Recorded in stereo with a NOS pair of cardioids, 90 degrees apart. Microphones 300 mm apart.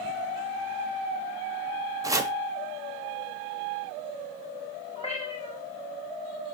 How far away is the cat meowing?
About 2 m.